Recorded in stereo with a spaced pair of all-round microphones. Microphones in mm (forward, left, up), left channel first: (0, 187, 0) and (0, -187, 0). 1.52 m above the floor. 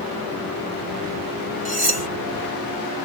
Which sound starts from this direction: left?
Cutlery clinking, at 1.6 s.